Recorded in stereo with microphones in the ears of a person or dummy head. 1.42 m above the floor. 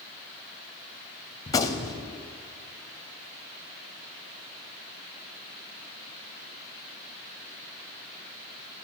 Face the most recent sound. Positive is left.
turn(degrees=20)  # may be behind; listen again after turning